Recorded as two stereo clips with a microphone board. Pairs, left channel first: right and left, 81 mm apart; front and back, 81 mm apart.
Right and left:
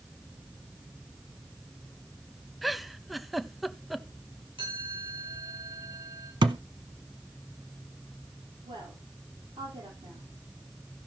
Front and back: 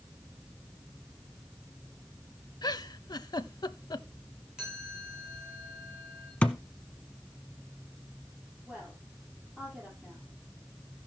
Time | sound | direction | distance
2.6 | a giggle | straight ahead | 0.6 m
4.6 | a chime | 100° left | 8 m
6.4 | a thud | 75° left | 0.8 m
8.7 | a woman speaking | 105° left | 9 m